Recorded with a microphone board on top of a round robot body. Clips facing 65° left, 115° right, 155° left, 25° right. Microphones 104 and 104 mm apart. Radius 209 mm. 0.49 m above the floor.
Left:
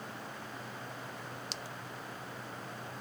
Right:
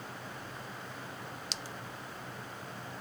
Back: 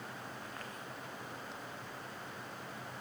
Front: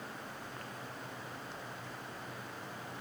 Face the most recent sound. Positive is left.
No sound to turn to.